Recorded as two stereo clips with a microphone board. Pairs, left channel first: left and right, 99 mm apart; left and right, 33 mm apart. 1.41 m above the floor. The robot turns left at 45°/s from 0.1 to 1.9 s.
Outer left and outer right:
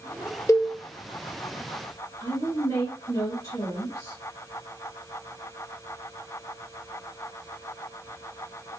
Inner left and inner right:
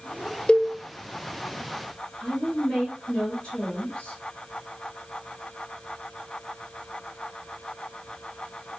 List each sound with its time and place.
0.5 s a cowbell: 30° left (ahead or behind), 0.5 m; by 0.7 s 25° left (ahead or behind), 0.5 m
2.2 s a woman speaking: 45° left (ahead or behind), 1.9 m